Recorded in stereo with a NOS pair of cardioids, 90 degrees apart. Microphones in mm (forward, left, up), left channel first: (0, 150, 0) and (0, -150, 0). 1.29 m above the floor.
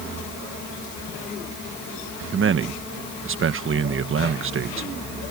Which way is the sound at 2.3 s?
45° right.